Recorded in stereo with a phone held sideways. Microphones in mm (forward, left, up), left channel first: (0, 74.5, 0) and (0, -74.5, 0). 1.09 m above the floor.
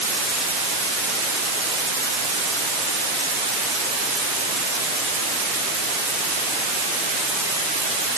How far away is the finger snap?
I don't hear a finger snap.